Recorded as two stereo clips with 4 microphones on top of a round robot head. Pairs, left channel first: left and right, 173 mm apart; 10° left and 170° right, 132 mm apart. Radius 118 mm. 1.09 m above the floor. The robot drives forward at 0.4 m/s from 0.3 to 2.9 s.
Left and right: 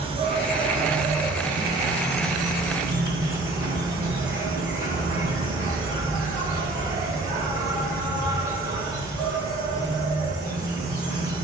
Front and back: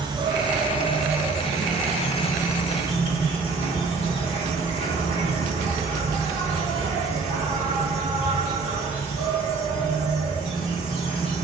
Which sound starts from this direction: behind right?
An insect, at 0.0 s.